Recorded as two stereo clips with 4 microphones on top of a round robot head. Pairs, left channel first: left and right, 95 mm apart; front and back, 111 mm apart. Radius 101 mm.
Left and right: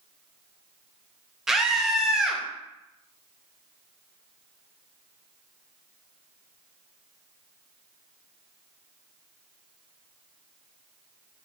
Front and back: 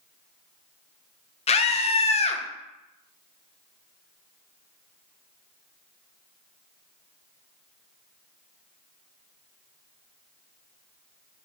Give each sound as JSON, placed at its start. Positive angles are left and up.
{"t": 1.5, "sound": "a scream", "azimuth_deg": -5, "distance_m": 0.5}